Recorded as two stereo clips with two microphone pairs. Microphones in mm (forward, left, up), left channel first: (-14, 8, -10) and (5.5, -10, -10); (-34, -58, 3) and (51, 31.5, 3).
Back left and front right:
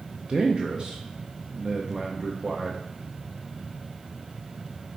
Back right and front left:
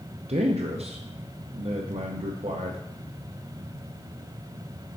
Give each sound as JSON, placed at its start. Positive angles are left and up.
{"t": 0.3, "sound": "a man speaking", "azimuth_deg": 15, "distance_m": 0.6}